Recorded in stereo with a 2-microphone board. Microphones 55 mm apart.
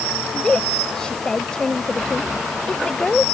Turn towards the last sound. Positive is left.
turn(degrees=15)  # may be behind; listen again after turning